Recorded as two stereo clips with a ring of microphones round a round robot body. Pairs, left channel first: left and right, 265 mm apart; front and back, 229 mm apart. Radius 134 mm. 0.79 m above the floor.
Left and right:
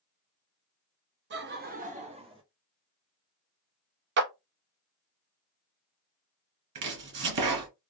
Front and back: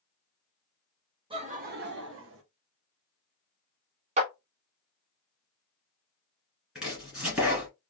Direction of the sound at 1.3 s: 120° right.